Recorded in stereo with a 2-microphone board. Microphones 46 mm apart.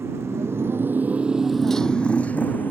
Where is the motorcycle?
80° right; by 2.7 s 40° left (ahead or behind).